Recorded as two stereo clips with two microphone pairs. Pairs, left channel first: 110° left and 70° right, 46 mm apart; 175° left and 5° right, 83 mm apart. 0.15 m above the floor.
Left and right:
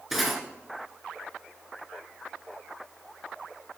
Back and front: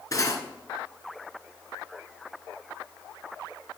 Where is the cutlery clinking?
155° right, 1.3 m.